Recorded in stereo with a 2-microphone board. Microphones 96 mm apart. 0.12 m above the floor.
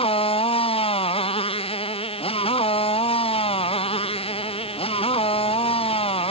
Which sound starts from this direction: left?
A motorcycle, at 0.0 s.